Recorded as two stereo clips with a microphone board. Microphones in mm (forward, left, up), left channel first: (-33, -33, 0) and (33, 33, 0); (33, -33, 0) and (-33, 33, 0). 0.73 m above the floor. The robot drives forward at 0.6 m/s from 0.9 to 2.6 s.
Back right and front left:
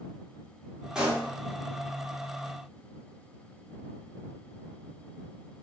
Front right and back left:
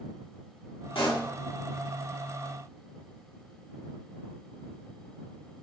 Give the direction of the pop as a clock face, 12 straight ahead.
1 o'clock.